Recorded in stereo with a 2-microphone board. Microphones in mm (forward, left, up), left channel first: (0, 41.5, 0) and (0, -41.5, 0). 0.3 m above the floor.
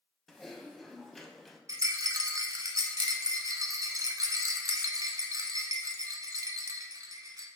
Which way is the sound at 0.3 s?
5° left (ahead or behind).